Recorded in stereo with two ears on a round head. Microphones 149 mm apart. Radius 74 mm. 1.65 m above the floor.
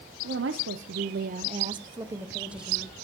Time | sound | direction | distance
0.2 | a woman speaking | 70° right (ahead or behind) | 1.0 m